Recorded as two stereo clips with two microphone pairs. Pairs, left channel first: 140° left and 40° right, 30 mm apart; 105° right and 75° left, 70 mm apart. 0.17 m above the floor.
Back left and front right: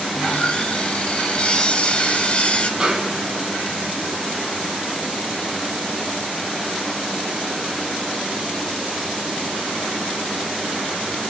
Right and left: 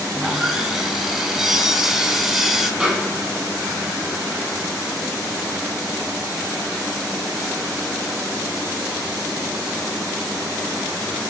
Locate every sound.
0.1 s sawing: 160° left, 0.8 m
2.8 s a snare drum: 5° right, 1.0 m